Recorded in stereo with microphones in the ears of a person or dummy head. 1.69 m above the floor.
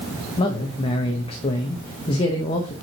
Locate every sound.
0.4 s a man speaking: 30° left (ahead or behind), 0.9 m